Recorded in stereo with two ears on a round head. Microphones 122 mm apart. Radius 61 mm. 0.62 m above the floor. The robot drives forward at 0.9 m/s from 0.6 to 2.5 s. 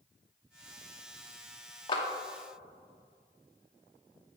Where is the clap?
35° left (ahead or behind), 0.8 m.